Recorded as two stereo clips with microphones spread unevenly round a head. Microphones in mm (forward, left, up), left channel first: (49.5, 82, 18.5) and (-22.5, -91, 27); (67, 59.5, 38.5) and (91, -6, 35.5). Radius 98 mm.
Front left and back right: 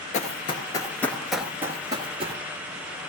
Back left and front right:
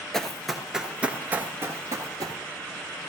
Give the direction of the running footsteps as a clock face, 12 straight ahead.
11 o'clock.